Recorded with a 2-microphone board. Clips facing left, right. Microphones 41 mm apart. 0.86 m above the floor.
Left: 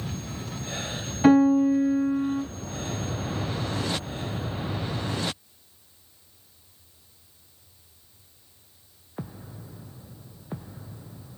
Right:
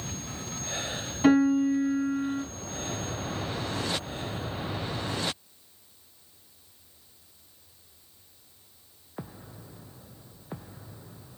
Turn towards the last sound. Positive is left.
turn(degrees=15)  # may be behind; listen again after turning